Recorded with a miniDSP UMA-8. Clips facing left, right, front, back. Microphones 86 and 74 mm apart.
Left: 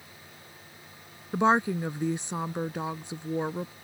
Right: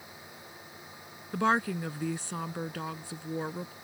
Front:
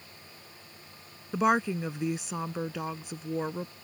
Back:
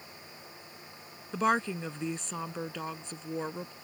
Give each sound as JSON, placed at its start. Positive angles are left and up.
{"t": 1.3, "sound": "a woman speaking", "azimuth_deg": 70}